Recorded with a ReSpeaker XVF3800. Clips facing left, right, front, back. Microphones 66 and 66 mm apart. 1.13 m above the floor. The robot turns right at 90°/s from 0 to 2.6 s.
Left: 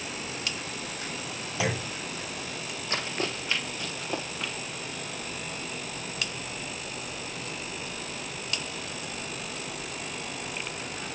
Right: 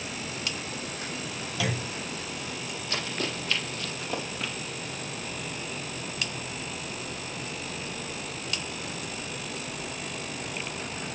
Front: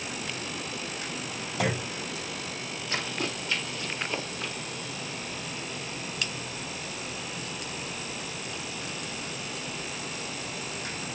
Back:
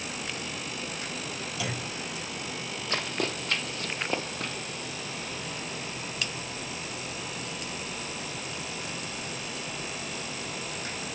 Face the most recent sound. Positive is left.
turn(degrees=-175)